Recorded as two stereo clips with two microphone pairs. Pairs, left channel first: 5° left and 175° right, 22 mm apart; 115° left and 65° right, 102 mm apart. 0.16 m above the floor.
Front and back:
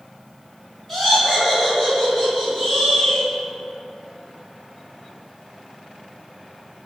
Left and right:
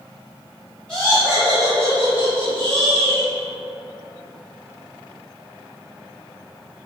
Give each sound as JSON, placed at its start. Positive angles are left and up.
{"t": 0.9, "sound": "laughter", "azimuth_deg": 55, "distance_m": 1.7}